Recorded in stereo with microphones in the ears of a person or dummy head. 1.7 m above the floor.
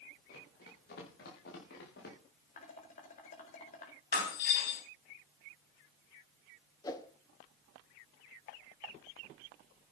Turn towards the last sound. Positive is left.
turn(degrees=20)  # may be behind; listen again after turning